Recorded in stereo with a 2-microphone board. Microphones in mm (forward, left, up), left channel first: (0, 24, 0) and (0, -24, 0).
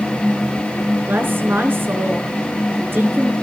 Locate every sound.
1.1 s a woman speaking: 50° right (ahead or behind), 4 m